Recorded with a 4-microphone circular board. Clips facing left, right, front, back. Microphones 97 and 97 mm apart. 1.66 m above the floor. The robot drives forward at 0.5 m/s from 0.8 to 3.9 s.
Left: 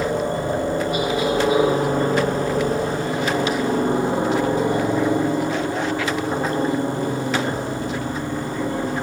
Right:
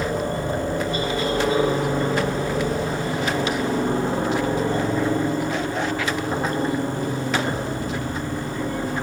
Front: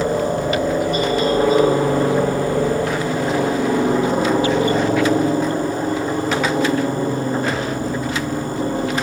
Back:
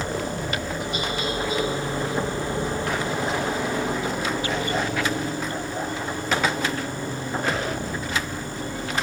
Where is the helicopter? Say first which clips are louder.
Left 2 dB, front 9 dB; 20° left.